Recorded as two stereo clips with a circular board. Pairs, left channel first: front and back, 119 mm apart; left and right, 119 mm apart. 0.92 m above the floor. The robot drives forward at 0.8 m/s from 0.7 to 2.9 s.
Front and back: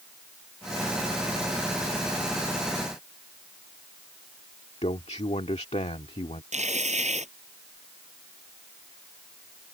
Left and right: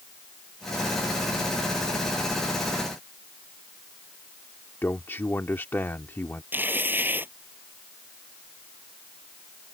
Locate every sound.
4.8 s a man speaking: 20° left
6.5 s tearing paper: 165° right